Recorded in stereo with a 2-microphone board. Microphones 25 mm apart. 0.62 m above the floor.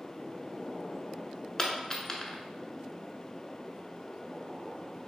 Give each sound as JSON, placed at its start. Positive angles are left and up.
{"t": 1.6, "sound": "a dropped coin", "side_deg": 20, "distance_m": 0.6}